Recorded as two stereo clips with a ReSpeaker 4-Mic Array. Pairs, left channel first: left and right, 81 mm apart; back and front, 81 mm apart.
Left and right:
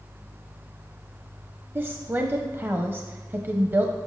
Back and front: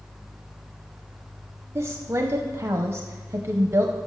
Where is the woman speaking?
40° right, 0.8 m.